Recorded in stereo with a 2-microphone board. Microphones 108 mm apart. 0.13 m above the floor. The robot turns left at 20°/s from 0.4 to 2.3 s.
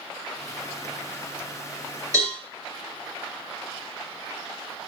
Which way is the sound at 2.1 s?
30° right (ahead or behind).